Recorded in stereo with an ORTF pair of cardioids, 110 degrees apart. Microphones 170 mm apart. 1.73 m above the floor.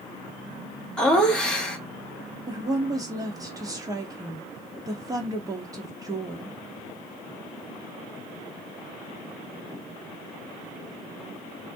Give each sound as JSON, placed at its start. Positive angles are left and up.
{"t": 1.0, "sound": "laughter", "azimuth_deg": 5, "distance_m": 0.9}
{"t": 2.5, "sound": "a woman speaking", "azimuth_deg": -20, "distance_m": 1.2}